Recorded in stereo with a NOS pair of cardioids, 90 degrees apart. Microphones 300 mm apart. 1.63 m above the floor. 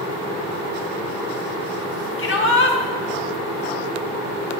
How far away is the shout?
About 2 m.